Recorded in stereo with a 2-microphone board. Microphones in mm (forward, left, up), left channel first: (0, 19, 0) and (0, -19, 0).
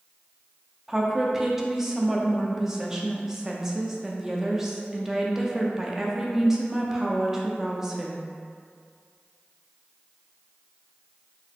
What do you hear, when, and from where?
0.9 s a woman speaking: 10° right (ahead or behind), 0.6 m